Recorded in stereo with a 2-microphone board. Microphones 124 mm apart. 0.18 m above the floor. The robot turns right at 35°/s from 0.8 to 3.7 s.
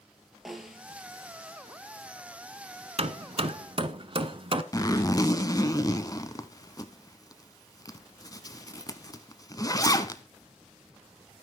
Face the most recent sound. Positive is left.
turn(degrees=30)  # may be behind; listen again after turning